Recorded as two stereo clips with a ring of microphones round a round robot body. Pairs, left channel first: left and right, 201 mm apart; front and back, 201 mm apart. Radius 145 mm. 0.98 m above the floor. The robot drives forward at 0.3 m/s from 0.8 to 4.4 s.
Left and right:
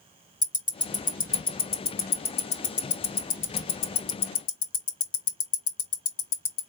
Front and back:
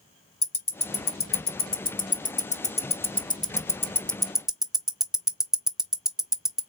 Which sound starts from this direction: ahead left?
Ticking, at 0.4 s.